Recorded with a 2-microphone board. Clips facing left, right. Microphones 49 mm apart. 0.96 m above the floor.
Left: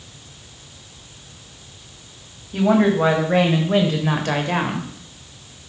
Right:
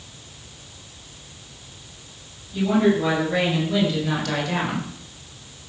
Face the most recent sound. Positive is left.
turn(degrees=25)  # may be behind; listen again after turning